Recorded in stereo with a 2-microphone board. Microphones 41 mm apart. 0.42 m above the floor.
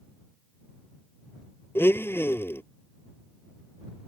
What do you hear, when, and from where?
1.8 s a blender: 75° left (ahead or behind)